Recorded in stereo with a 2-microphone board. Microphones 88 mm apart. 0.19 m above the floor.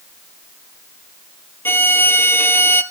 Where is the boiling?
I don't hear boiling.